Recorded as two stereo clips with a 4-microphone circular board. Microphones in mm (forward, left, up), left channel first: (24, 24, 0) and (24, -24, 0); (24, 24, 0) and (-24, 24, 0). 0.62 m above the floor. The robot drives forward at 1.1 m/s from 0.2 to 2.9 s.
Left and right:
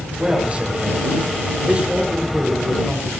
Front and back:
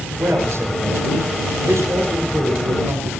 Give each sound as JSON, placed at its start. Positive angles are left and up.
{"t": 0.2, "sound": "a man speaking", "azimuth_deg": -155, "distance_m": 9.0}